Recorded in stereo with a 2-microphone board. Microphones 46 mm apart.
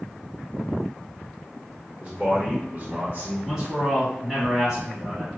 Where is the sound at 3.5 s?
5° right (ahead or behind), 1.6 m.